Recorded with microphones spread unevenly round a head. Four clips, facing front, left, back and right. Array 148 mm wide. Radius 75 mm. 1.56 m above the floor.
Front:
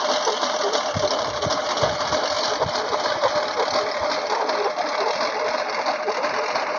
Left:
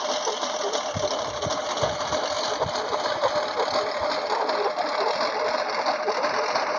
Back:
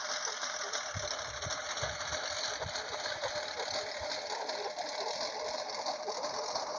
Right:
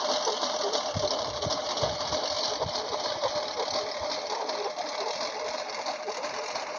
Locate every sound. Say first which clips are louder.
0.0 s a lawn mower: left 2 dB, front 19 dB; 5° left; by 6.8 s 35° left